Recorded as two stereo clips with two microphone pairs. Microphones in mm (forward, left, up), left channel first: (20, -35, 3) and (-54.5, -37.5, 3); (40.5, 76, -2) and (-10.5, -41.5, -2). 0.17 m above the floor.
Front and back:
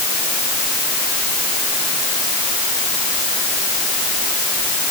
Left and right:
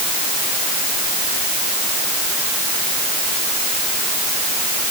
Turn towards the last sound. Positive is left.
No sound to turn to.